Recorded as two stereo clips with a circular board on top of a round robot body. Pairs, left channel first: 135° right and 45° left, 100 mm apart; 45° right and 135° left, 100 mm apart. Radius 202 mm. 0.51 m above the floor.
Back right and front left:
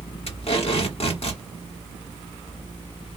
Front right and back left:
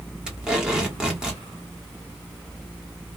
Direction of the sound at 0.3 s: 140° right.